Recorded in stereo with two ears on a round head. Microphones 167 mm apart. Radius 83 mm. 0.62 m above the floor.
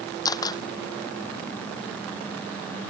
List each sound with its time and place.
0.2 s a camera shutter: 20° left (ahead or behind)